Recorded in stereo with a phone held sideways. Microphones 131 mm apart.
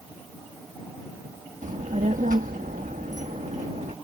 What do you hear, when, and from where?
1.6 s a child speaking: 70° right (ahead or behind); by 4.0 s 55° right (ahead or behind)